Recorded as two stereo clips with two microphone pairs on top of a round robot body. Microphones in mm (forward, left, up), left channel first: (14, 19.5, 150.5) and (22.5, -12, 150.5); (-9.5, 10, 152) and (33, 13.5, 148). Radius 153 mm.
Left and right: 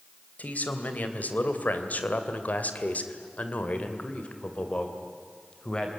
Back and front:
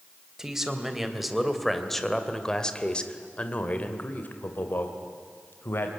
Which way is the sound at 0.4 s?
80° left.